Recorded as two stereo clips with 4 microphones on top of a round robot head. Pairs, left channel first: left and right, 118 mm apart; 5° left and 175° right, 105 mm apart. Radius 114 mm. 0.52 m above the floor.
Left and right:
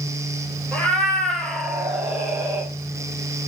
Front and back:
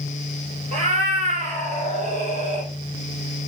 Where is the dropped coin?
I don't hear a dropped coin.